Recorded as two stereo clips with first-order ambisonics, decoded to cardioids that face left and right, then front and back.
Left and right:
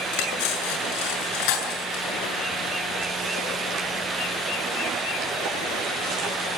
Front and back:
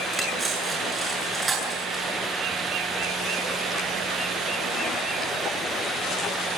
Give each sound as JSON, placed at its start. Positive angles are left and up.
{"t": 0.1, "sound": "cutlery clinking", "azimuth_deg": 100, "distance_m": 8.0}